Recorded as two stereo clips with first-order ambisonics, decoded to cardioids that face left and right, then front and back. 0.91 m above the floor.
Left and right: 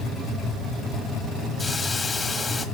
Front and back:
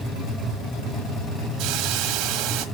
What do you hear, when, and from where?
1.6 s a hiss: 165° left, 1.3 m